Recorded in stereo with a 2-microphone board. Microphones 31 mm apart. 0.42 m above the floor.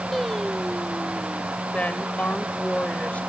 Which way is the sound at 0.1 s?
10° left (ahead or behind).